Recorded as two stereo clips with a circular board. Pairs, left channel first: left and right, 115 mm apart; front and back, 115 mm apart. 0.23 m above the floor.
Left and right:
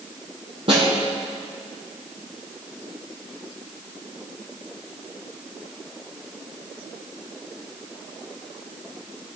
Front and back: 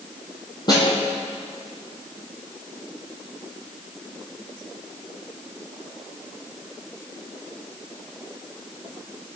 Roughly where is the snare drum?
Ahead right.